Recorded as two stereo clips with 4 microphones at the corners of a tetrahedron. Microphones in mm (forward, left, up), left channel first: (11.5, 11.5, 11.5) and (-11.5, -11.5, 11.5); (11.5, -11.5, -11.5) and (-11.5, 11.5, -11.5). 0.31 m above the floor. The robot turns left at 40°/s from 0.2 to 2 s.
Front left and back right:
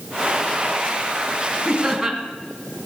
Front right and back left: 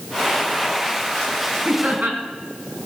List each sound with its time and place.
1.6 s laughter: 155° left, 3 m; by 2.2 s 140° left, 3 m